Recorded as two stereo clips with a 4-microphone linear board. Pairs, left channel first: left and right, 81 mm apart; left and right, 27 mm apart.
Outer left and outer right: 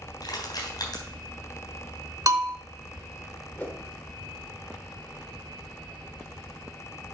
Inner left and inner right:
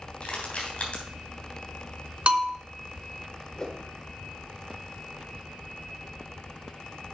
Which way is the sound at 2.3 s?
45° right (ahead or behind).